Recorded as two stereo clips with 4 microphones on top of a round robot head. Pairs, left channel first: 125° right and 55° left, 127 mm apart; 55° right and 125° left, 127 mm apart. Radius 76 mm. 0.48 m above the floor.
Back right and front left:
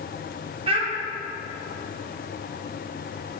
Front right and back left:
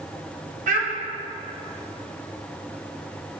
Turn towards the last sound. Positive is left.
turn(degrees=100)